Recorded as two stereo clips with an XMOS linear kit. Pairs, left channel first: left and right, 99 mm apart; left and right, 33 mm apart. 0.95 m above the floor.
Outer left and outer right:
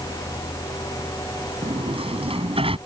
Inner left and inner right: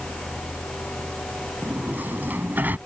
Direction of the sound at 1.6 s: 70° right (ahead or behind).